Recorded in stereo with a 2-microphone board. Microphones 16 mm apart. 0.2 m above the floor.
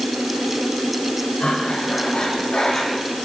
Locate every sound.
1.4 s breathing: 85° left, 10 m